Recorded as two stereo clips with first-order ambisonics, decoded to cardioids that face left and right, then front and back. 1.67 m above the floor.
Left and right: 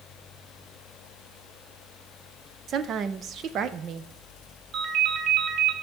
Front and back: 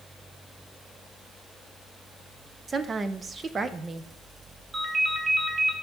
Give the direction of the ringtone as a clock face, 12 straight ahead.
4 o'clock.